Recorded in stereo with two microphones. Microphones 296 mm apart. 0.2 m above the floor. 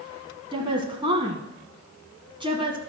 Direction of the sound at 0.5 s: 15° right (ahead or behind).